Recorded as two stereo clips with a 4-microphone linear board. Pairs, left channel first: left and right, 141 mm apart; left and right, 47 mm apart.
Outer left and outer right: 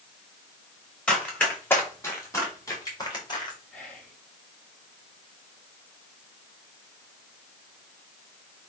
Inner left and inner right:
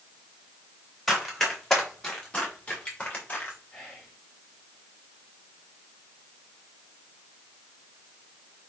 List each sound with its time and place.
1.1 s running footsteps: 10° left (ahead or behind), 4.5 m; by 3.6 s 35° left (ahead or behind), 4.5 m
3.7 s whispering: 5° left (ahead or behind), 5 m